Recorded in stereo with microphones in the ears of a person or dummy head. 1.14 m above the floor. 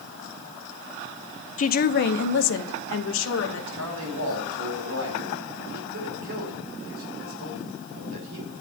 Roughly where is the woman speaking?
Left.